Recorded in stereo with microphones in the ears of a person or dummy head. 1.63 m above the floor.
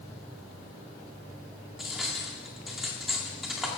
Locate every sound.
1.8 s cutlery clinking: centre (ahead or behind), 2 m